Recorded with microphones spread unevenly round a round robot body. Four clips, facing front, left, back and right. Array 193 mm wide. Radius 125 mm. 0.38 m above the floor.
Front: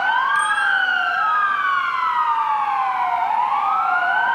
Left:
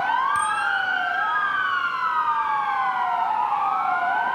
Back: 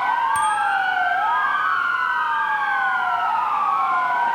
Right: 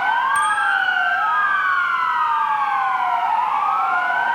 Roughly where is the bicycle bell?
Behind left.